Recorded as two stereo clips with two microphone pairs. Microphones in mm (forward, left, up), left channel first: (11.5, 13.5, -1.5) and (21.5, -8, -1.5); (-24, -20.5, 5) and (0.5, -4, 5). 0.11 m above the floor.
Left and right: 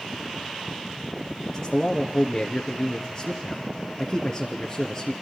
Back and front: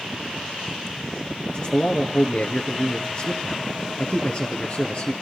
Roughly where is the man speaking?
Behind.